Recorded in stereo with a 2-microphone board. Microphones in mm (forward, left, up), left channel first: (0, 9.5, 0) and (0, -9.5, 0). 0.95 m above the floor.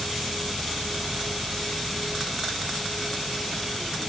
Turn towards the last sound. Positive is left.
turn(degrees=10)  # may be behind; listen again after turning